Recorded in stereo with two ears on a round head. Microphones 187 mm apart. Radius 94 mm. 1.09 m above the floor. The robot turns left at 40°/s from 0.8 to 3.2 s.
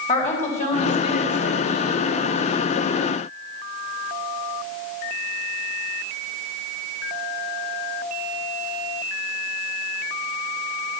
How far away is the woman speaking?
About 5 m.